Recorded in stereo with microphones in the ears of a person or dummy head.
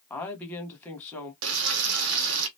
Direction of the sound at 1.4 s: 75° right (ahead or behind).